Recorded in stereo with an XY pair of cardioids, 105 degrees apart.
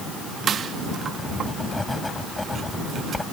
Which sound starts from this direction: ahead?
Writing, at 1.2 s.